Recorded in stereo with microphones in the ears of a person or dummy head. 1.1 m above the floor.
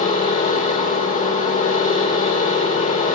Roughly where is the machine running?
Left.